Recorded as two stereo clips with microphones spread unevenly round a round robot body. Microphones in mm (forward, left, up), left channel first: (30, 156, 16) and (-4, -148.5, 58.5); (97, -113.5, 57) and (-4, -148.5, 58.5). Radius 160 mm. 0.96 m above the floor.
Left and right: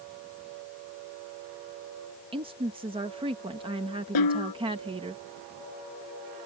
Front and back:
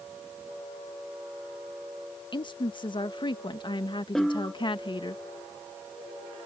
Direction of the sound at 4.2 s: 110° left.